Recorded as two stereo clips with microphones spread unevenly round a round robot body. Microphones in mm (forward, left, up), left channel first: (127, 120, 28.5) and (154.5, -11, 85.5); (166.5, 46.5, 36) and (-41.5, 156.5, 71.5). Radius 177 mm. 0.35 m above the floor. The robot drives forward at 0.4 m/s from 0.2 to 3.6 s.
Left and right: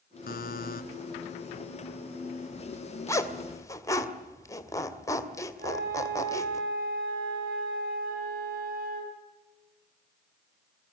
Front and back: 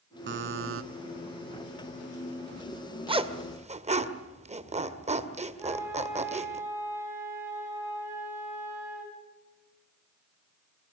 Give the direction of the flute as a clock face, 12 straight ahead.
4 o'clock.